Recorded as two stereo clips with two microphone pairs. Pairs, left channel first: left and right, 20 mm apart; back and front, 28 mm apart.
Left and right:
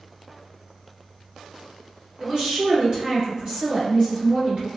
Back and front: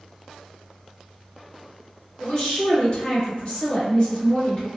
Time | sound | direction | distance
2.2 | a woman speaking | 130° right | 1.4 m